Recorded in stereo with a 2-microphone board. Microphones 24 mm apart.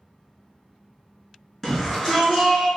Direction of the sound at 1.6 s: 5° left (ahead or behind).